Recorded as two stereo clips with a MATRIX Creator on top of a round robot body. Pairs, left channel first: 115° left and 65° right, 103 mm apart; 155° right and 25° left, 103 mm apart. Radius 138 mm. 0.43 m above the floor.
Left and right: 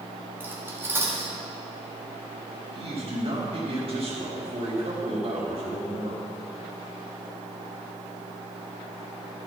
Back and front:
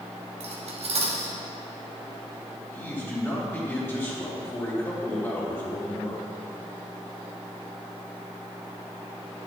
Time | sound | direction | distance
0.4 | cutlery clinking | straight ahead | 1.9 m
2.7 | a man speaking | 90° right | 4 m